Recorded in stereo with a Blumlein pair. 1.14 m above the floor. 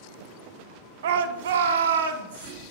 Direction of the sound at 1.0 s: 60° right.